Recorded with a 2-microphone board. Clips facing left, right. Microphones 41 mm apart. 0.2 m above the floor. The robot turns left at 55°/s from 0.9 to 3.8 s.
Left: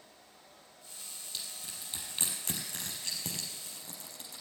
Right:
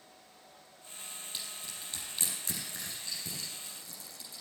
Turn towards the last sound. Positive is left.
turn(degrees=55)  # may be behind; listen again after turning